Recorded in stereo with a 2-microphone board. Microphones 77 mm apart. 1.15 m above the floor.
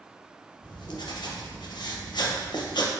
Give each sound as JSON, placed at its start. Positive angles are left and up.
{"t": 0.6, "sound": "writing", "side_deg": 65, "distance_m": 0.7}